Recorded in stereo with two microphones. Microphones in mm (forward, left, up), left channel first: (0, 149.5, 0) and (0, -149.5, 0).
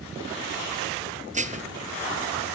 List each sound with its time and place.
1.3 s dishes clattering: 25° right (ahead or behind), 1.4 m